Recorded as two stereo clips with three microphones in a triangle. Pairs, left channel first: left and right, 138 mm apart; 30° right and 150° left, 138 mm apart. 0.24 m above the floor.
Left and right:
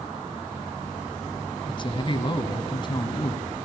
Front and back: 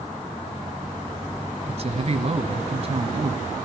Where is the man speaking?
130° left, 1.7 m.